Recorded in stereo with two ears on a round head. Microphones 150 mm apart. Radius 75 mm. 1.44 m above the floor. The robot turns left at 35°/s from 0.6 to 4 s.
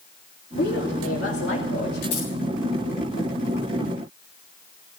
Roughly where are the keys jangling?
Left.